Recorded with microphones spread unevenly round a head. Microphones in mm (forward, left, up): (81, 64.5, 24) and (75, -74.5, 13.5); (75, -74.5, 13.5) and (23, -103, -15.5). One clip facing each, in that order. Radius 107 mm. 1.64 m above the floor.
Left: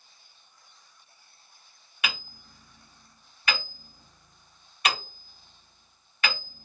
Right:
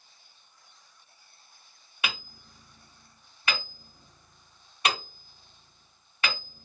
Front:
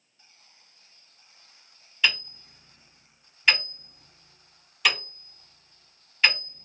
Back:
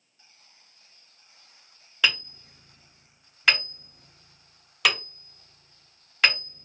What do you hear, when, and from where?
2.0 s hammering: 160° right, 1.7 m